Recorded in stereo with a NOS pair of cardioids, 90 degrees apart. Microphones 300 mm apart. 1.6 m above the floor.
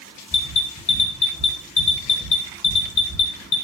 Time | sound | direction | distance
0.3 | an alarm | 30° left | 1.2 m